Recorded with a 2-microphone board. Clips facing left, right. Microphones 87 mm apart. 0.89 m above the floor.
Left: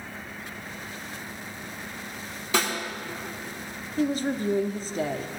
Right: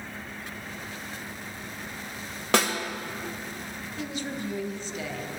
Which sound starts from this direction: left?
A woman speaking, at 4.0 s.